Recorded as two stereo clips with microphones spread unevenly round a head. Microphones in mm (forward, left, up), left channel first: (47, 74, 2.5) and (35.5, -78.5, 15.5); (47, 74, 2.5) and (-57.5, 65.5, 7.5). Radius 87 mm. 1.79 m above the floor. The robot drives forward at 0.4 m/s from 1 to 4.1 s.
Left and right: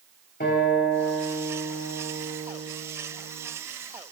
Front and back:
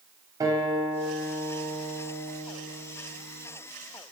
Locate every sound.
0.4 s a guitar: 130° left, 8 m; by 3.5 s 135° left, 9 m